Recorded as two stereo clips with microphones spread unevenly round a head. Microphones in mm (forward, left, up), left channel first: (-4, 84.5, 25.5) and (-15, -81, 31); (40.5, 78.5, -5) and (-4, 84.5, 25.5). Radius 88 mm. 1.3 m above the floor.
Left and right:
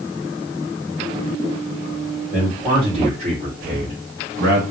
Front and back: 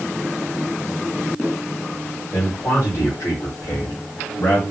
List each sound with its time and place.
2.3 s a man speaking: 35° right, 2.5 m; by 4.6 s 75° right, 1.9 m